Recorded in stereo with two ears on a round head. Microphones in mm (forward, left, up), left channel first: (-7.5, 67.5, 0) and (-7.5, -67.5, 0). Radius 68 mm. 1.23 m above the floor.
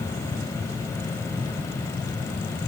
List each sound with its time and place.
Only background noise.